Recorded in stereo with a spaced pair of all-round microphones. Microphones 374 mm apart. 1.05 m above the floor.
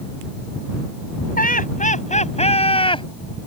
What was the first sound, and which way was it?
Laughter, 20° left (ahead or behind).